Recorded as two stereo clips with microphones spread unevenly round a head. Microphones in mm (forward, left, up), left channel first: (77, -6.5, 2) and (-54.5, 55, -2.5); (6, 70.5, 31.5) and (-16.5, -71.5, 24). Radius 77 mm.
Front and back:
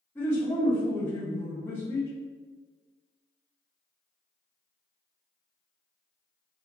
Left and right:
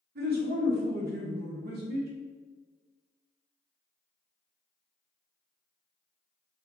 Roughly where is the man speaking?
Right.